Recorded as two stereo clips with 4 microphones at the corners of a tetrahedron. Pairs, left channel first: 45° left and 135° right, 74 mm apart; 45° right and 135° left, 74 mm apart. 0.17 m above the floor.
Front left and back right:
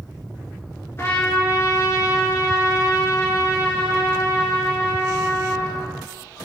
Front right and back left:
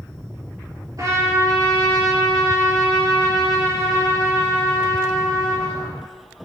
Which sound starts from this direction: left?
A trumpet, at 1.0 s.